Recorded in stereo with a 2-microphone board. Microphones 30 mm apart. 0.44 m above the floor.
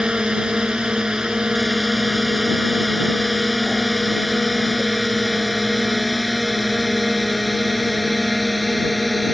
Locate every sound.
0.0 s a drone: 30° right (ahead or behind); by 9.3 s centre (ahead or behind)